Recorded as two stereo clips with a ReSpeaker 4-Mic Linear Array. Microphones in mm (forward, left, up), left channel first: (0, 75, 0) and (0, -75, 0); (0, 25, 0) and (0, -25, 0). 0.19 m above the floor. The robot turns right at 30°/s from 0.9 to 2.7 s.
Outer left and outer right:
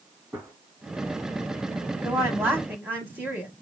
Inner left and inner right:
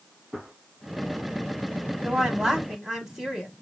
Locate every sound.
0.3 s a gunshot: 10° right (ahead or behind), 1.9 m
2.0 s a woman speaking: 15° right (ahead or behind), 1.0 m